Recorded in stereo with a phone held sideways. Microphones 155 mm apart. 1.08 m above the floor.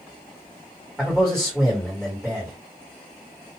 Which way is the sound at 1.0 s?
Centre (ahead or behind).